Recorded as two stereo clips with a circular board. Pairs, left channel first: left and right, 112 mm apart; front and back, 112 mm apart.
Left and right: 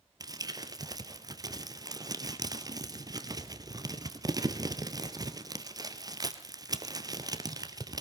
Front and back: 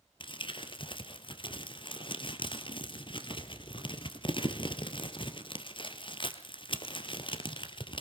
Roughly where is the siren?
No siren in this recording.